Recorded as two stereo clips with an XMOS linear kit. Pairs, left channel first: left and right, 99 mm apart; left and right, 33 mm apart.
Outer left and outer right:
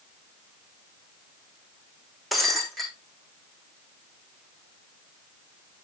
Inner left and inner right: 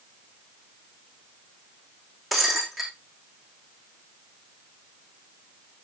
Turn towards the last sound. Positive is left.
turn(degrees=0)  # may be behind; listen again after turning